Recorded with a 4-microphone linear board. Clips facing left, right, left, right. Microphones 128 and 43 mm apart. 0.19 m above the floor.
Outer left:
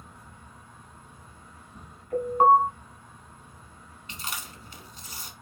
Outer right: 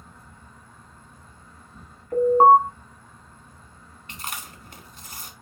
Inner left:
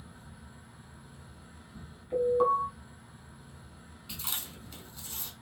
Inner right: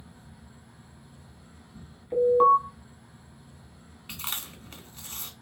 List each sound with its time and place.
0.0 s an insect: 15° left (ahead or behind), 1.5 m
2.1 s an alarm: 30° right (ahead or behind), 0.9 m
4.1 s chewing: 50° right (ahead or behind), 0.7 m